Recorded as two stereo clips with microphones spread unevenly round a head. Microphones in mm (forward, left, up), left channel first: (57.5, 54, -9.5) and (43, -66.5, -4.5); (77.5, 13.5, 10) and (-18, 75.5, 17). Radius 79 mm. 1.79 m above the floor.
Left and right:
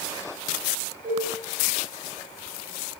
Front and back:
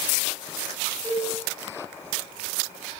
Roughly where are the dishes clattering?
Behind right.